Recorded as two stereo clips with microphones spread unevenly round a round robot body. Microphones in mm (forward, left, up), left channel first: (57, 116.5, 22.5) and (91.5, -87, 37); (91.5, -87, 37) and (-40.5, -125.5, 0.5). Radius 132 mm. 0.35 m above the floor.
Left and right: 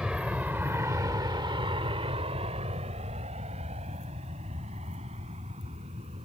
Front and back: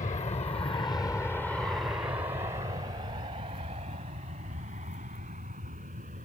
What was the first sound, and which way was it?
An aircraft, 5° left.